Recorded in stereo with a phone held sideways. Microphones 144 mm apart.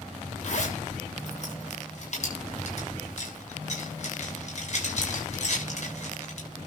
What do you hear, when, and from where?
0.4 s a zipper: 55° left (ahead or behind), 7 m